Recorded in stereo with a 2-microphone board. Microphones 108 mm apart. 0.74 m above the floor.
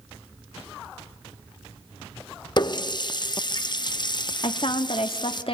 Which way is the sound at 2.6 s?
45° left (ahead or behind).